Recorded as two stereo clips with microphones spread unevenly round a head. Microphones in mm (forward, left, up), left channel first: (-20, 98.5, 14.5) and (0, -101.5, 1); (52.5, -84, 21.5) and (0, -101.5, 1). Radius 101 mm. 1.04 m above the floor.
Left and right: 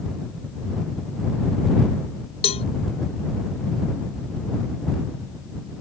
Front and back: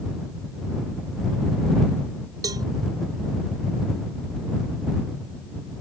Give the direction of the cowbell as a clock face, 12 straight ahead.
7 o'clock.